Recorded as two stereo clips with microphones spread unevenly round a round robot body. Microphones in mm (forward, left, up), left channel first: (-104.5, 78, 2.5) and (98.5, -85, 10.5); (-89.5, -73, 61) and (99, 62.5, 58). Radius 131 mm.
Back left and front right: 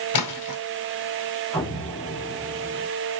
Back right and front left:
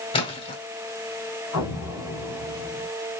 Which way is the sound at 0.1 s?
145° left.